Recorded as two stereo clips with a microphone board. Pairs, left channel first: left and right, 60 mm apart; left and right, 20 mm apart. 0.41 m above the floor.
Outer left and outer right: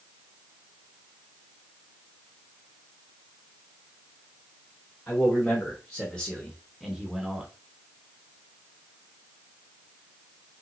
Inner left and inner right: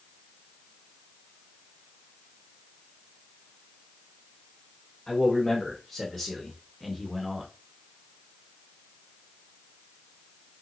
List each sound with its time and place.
5.1 s a man speaking: 25° left (ahead or behind), 1.3 m; by 7.5 s 15° right (ahead or behind), 0.9 m